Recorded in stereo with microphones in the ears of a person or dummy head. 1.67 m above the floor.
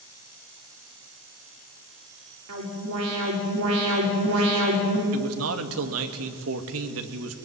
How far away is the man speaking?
About 2.5 m.